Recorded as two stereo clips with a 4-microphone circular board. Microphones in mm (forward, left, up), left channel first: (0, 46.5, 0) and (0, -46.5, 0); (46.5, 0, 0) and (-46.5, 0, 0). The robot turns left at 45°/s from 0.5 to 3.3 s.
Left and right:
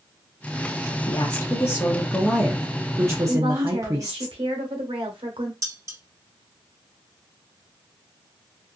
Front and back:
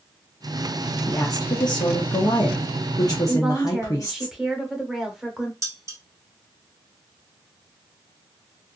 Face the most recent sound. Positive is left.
turn(degrees=-135)